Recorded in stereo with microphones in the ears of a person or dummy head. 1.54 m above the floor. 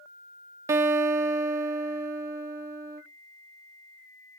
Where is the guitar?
20° right (ahead or behind), 0.5 m.